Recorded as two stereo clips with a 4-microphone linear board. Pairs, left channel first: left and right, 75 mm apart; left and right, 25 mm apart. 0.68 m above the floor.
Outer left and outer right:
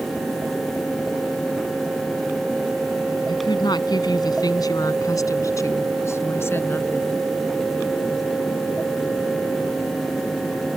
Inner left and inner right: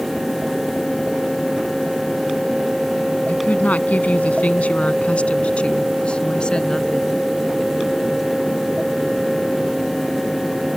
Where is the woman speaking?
80° left; by 7.2 s 25° left (ahead or behind).